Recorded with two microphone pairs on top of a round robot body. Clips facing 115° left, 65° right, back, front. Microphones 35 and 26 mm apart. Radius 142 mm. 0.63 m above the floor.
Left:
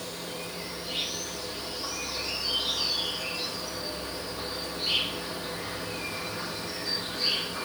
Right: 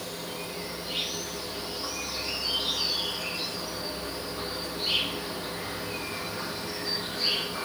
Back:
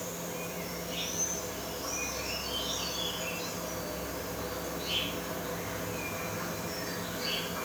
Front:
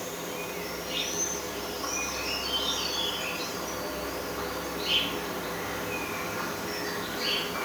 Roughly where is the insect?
Ahead.